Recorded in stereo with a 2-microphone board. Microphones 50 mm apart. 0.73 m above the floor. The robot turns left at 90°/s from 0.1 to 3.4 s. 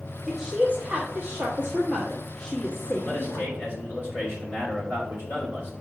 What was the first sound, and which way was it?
A woman speaking, 5° right.